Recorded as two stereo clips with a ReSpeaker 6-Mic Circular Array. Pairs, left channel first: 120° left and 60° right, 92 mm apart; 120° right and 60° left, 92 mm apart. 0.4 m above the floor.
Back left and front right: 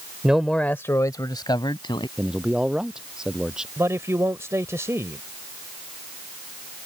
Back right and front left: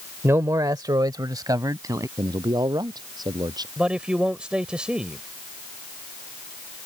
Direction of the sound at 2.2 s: 20° left.